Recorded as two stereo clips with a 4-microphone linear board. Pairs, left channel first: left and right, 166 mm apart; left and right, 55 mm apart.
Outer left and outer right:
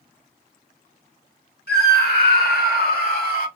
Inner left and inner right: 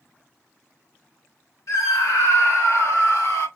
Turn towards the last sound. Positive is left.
turn(degrees=65)  # may be behind; listen again after turning